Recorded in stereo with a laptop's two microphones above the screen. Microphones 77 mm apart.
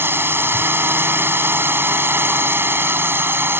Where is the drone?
30° right (ahead or behind).